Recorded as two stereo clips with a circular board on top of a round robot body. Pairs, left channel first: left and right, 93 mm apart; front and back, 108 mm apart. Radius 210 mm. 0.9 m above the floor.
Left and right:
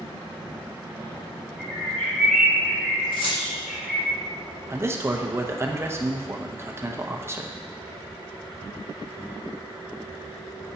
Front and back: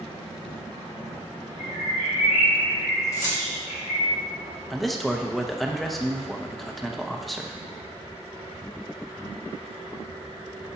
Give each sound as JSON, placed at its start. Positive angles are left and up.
{"t": 1.6, "sound": "a bird", "azimuth_deg": 0, "distance_m": 1.0}
{"t": 3.1, "sound": "keys jangling", "azimuth_deg": 60, "distance_m": 1.8}
{"t": 4.7, "sound": "a man speaking", "azimuth_deg": -90, "distance_m": 1.0}